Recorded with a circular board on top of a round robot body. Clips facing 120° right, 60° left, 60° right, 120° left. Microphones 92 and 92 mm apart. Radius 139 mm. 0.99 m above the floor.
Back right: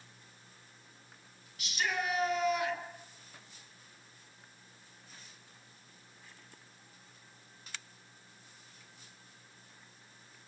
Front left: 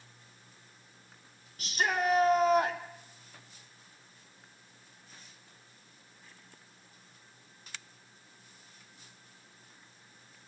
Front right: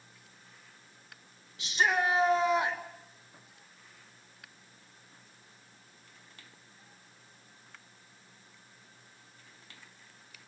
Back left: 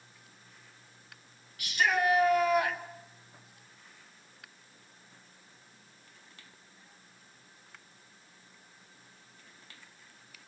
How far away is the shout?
About 4.5 m.